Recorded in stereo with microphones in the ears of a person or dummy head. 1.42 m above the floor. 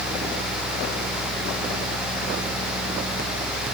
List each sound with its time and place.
Only background noise.